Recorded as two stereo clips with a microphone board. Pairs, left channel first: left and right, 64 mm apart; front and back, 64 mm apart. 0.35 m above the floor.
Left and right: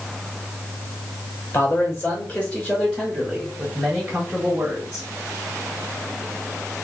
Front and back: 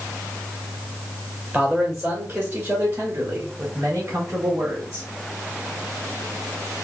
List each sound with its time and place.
1.5 s a man speaking: 110° left, 1.2 m; by 5.1 s 140° right, 1.8 m